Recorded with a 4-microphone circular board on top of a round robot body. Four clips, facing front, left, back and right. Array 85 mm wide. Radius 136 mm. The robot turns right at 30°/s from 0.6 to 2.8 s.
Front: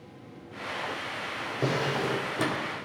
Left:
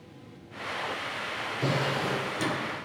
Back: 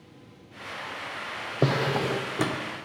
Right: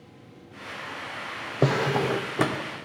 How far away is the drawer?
About 0.7 m.